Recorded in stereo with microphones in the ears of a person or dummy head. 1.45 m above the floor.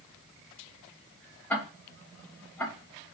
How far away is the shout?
I don't hear a shout.